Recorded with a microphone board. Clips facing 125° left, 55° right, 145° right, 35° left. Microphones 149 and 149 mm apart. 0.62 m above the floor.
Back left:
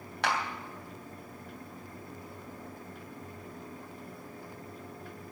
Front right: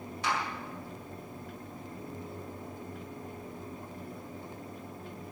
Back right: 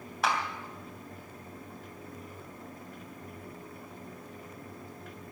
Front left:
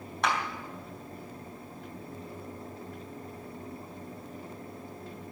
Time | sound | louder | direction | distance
0.2 | a clap | back left 2 dB, even | 125° left | 3 m